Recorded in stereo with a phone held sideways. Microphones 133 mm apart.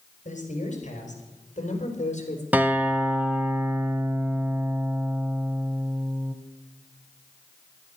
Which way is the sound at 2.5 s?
15° right (ahead or behind).